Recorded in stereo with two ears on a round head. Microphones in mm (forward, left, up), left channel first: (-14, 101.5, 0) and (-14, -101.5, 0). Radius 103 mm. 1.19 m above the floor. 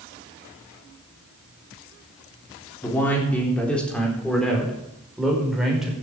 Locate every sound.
2.8 s a man speaking: 10° left (ahead or behind), 3.5 m; by 5.9 s 5° right (ahead or behind), 5 m